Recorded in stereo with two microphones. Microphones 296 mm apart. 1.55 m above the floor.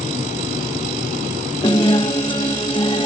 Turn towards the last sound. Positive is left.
turn(degrees=15)  # may be behind; listen again after turning